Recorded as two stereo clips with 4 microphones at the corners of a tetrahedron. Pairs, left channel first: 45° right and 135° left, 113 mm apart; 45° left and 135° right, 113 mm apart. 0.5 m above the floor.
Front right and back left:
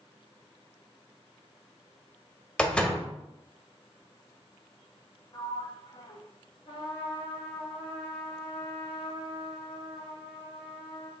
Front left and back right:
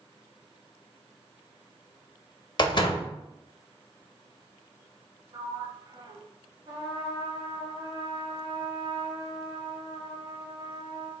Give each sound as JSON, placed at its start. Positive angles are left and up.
{"t": 2.6, "sound": "a door slam", "azimuth_deg": 30, "distance_m": 0.6}
{"t": 5.3, "sound": "a sliding door", "azimuth_deg": -90, "distance_m": 0.5}
{"t": 6.7, "sound": "a trumpet", "azimuth_deg": -80, "distance_m": 1.9}